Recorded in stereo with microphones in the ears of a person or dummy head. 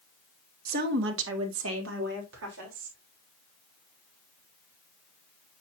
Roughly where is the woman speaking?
Right.